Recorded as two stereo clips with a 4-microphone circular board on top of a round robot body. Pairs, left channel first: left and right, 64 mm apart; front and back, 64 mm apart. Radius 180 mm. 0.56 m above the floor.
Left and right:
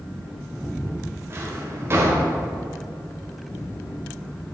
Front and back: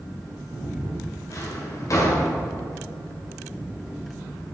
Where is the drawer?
40° right, 1.7 m.